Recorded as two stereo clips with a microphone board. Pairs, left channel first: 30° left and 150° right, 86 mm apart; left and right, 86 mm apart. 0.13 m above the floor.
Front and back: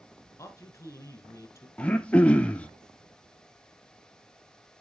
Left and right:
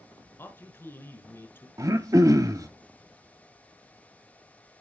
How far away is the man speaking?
About 1.2 m.